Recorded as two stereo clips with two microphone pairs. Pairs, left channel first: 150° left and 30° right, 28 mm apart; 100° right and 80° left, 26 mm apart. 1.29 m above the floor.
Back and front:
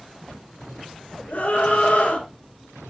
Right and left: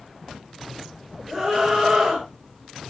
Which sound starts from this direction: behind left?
A scream, at 1.3 s.